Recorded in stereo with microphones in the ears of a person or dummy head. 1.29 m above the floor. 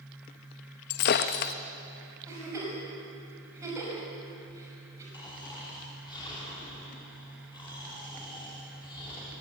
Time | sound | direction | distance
0.9 | breaking glass | 45° left (ahead or behind) | 0.7 m
2.3 | a giggle | 15° right (ahead or behind) | 6 m
5.1 | snoring | 20° left (ahead or behind) | 4 m